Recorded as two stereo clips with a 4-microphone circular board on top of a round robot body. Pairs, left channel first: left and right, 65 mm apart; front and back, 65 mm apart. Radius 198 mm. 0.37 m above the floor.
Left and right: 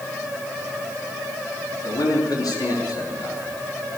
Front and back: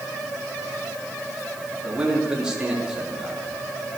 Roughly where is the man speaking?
Left.